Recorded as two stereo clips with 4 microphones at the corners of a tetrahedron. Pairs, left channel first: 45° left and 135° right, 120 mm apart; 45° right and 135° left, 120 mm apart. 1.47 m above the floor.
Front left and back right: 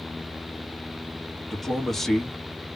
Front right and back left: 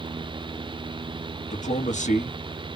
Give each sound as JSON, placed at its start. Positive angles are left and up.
{"t": 1.5, "sound": "a man speaking", "azimuth_deg": -45, "distance_m": 0.8}